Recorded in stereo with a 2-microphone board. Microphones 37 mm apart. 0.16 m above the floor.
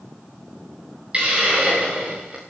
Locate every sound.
1.1 s a hiss: 25° right (ahead or behind), 7.5 m